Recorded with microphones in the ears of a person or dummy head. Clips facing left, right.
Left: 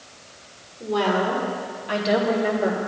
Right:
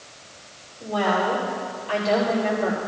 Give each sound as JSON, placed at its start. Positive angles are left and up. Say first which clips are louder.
{"t": 0.8, "sound": "a woman speaking", "louder": "left 1 dB", "side_deg": 30, "distance_m": 3.5}